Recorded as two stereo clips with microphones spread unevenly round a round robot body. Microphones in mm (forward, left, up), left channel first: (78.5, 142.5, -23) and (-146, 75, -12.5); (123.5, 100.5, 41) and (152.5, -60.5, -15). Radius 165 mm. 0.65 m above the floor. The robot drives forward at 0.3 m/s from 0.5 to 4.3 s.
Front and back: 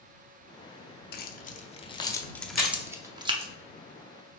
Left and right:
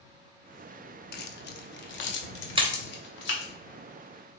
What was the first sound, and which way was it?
Keys jangling, 65° left.